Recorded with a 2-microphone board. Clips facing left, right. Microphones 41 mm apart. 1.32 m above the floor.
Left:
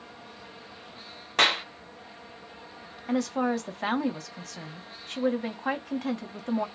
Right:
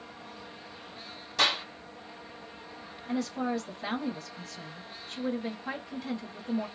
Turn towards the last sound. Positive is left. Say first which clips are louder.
# left 4 dB
turn(degrees=80)